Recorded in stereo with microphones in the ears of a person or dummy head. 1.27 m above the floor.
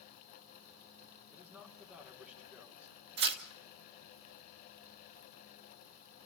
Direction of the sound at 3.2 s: 60° right (ahead or behind).